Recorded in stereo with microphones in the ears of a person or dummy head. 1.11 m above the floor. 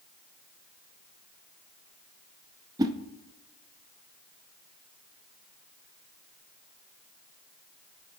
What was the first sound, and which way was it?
A whoosh, 15° right (ahead or behind).